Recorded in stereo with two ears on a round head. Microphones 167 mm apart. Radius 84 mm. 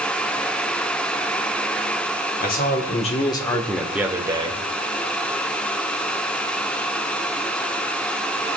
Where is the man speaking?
50° left (ahead or behind), 2 m; by 4.6 s 30° right (ahead or behind), 2 m.